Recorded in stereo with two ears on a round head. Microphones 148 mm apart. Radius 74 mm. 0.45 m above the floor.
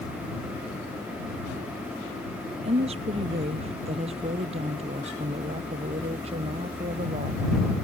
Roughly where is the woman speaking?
Right.